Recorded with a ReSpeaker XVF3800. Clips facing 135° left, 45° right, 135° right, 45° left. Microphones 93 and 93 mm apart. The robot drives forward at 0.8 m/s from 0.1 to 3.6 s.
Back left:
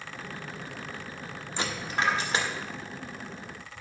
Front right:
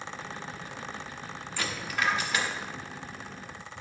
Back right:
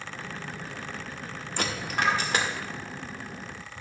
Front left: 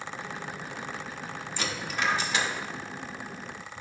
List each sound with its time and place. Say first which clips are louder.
1.6 s a dropped coin: back left 2 dB, back right 3 dB; 160° right, 1.1 m; by 2.5 s 170° right, 1.7 m